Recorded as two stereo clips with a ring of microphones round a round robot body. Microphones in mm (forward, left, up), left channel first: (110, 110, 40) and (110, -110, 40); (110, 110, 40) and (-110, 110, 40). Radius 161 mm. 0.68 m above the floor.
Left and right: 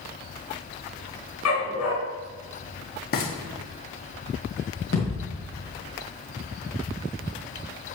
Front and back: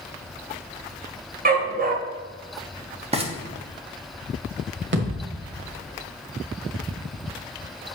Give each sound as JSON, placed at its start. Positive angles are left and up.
{"t": 1.4, "sound": "a dog barking", "azimuth_deg": 130, "distance_m": 1.9}
{"t": 3.1, "sound": "frying", "azimuth_deg": 125, "distance_m": 1.3}
{"t": 4.9, "sound": "a thud", "azimuth_deg": 145, "distance_m": 1.5}